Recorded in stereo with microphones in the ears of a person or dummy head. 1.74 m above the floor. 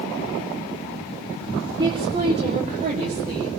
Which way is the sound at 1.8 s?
25° right (ahead or behind).